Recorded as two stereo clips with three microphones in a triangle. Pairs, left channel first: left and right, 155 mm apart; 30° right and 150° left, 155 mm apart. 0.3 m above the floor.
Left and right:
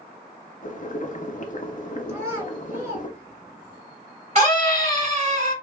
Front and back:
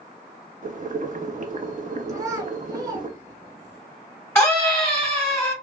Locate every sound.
0.6 s boiling: 120° left, 0.5 m
2.1 s a child speaking: 155° right, 1.3 m
4.3 s a scream: 100° right, 1.8 m